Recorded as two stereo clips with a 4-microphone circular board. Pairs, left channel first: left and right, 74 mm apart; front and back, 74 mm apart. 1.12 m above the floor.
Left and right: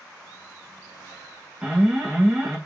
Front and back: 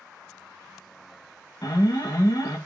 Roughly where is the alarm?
Ahead right.